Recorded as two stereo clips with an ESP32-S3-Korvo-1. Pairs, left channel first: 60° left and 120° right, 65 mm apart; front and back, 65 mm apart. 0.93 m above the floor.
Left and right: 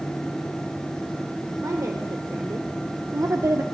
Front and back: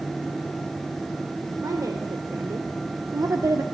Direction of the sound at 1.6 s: 155° right.